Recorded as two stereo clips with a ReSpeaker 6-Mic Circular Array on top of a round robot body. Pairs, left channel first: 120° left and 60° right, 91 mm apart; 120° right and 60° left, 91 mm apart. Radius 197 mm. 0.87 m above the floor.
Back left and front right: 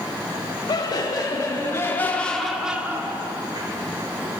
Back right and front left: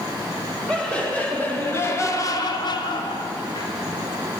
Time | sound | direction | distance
0.7 | laughter | 160° left | 2 m